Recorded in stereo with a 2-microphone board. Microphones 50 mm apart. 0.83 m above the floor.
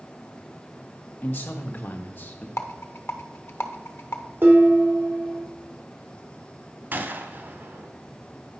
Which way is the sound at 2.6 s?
55° left (ahead or behind).